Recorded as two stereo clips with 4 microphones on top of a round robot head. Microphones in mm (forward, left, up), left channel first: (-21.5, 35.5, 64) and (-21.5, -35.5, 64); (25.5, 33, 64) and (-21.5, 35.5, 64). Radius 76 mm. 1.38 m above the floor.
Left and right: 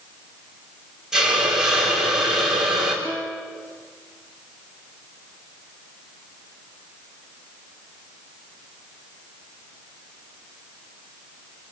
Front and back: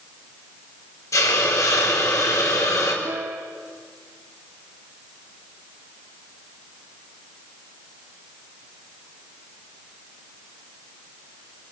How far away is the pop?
I don't hear a pop.